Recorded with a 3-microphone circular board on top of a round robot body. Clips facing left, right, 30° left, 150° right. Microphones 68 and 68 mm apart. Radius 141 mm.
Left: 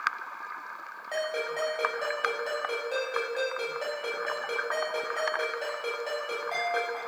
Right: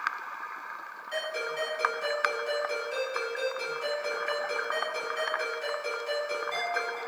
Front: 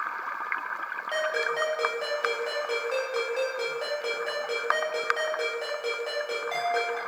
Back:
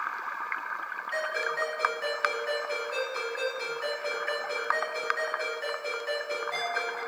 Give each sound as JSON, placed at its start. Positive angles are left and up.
{"t": 1.1, "sound": "a ringtone", "azimuth_deg": 50, "distance_m": 1.1}